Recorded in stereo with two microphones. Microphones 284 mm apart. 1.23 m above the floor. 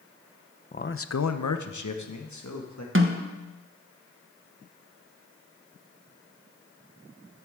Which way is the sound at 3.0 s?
45° right (ahead or behind).